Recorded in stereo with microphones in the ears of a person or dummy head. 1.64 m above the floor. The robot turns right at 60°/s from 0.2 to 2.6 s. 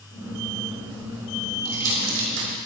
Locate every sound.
1.6 s crumpling: 55° right (ahead or behind), 4 m; by 2.5 s 65° right (ahead or behind), 4 m